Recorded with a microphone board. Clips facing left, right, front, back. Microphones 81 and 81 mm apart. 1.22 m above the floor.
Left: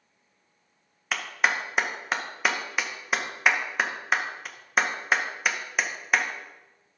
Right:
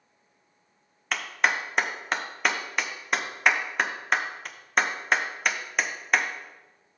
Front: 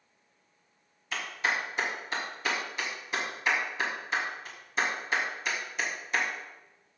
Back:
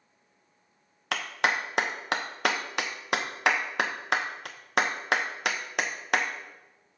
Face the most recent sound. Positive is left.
turn(degrees=175)